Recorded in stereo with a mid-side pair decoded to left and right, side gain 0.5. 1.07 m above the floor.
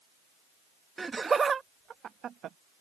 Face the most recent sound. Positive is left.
turn(degrees=-60)